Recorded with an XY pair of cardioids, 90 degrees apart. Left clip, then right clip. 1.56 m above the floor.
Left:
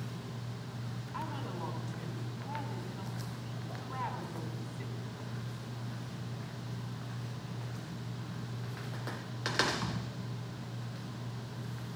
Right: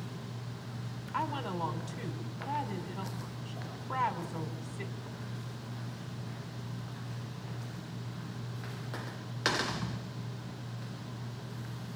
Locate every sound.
1.1 s a woman speaking: 60° right, 4.5 m